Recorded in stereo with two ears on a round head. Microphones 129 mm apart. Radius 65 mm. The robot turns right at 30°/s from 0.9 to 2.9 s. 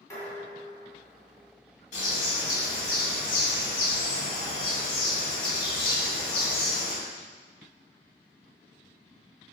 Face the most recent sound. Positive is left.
turn(degrees=75)  # may be behind; listen again after turning